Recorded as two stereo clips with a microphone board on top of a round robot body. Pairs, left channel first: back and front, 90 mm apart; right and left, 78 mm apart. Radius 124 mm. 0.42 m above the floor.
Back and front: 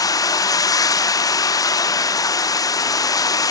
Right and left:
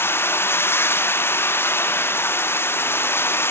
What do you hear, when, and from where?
0.0 s running water: 145° right, 0.9 m